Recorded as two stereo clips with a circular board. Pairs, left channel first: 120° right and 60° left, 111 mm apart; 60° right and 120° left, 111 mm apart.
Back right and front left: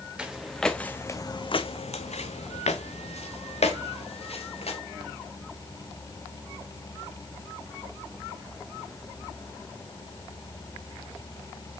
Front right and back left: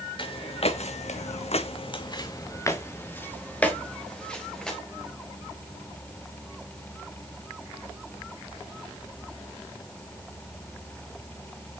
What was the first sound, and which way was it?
Footsteps, 20° right.